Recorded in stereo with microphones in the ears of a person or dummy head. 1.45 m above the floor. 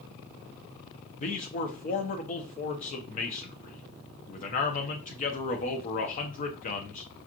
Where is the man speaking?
45° left (ahead or behind), 0.9 m.